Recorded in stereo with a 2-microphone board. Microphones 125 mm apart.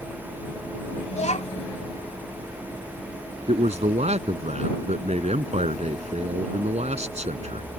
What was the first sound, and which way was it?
A child speaking, 65° left (ahead or behind).